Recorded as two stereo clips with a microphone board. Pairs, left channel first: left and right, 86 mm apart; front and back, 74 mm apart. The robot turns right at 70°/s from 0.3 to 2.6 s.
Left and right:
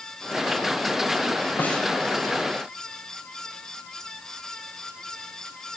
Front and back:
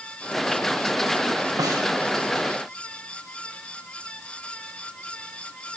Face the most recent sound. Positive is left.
turn(degrees=-135)